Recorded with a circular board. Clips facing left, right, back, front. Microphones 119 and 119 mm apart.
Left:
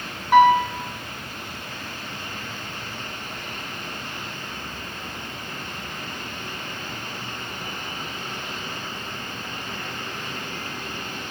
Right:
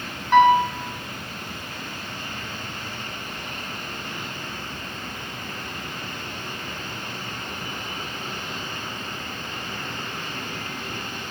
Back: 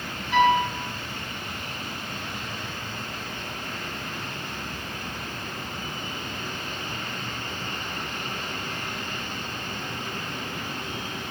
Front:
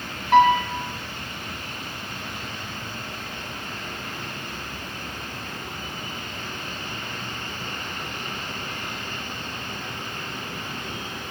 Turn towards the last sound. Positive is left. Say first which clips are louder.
# left 1 dB, front 4 dB
turn(degrees=10)